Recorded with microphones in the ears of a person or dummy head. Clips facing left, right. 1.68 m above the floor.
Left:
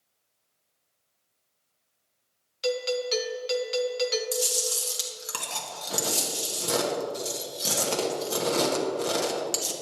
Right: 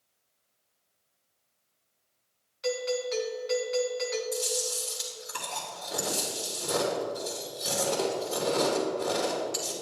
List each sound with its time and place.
2.6 s a doorbell: 50° left (ahead or behind), 1.0 m
4.3 s chewing: 80° left, 1.4 m